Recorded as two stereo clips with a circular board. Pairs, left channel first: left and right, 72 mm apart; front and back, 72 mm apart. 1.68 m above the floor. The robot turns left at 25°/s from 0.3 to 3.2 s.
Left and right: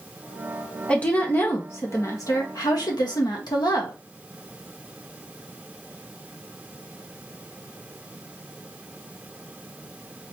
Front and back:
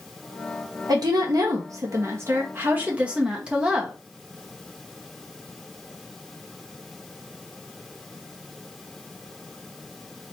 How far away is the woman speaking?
About 1.4 m.